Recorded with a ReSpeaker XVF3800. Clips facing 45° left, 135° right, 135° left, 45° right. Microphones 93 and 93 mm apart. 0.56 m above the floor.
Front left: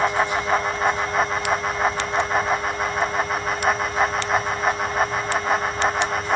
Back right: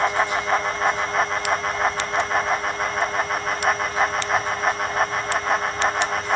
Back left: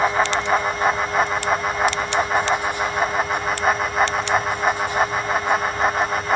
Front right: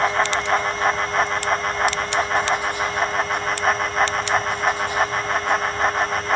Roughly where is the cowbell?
No cowbell in this recording.